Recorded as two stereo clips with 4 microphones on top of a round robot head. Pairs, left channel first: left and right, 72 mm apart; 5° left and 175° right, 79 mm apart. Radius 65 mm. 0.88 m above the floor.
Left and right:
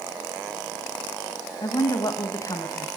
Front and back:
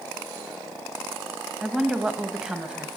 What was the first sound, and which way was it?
A woman speaking, 110° left.